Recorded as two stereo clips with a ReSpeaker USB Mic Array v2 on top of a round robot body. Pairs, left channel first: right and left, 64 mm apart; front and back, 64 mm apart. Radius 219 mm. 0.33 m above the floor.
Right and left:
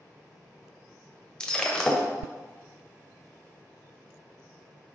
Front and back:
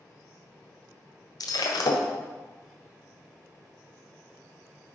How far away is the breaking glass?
About 1.3 m.